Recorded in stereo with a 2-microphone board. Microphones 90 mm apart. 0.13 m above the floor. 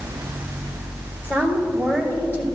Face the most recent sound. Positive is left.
turn(degrees=30)  # may be behind; listen again after turning